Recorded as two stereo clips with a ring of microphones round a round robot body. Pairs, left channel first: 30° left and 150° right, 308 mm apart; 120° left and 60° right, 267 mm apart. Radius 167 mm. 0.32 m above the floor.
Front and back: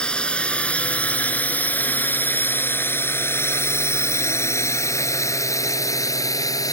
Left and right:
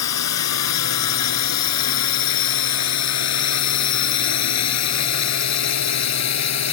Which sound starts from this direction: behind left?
A drone, at 0.0 s.